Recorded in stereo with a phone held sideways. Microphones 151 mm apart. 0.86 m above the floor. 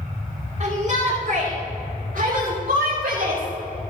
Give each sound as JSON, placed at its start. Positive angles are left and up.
{"t": 0.6, "sound": "a shout", "side_deg": -45, "distance_m": 2.5}